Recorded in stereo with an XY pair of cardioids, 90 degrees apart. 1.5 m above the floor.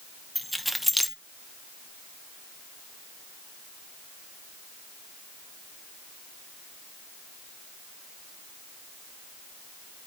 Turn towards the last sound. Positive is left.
turn(degrees=10)